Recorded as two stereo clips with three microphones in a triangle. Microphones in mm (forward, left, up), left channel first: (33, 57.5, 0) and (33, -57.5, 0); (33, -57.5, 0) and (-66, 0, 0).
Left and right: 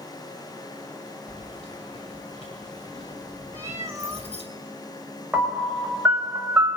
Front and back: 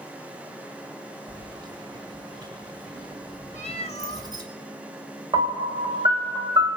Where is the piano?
165° right, 1.1 m.